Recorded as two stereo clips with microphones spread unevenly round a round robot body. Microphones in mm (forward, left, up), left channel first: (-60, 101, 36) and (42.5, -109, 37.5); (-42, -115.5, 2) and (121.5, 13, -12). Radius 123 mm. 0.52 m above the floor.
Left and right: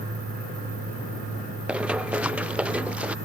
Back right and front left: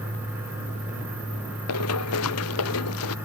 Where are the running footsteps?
150° right.